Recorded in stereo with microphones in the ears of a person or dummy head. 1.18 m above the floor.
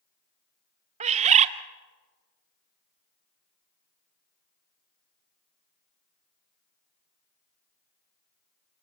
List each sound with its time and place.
1.0 s a bird: 40° right (ahead or behind), 0.8 m